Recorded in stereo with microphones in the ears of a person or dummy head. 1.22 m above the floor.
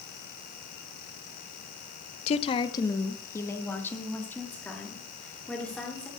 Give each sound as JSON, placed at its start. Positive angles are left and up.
{"t": 2.3, "sound": "a woman speaking", "side_deg": 45, "distance_m": 0.6}